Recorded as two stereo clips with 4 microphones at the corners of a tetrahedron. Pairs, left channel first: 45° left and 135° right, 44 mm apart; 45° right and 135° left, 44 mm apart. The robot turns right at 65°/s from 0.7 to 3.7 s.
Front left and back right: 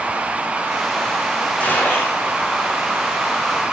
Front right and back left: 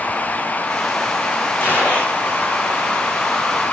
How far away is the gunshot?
About 6 m.